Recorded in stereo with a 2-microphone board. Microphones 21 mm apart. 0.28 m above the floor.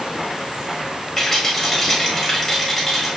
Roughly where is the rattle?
Centre.